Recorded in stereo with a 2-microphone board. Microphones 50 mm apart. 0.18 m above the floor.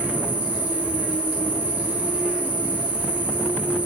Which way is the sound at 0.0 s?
30° right (ahead or behind).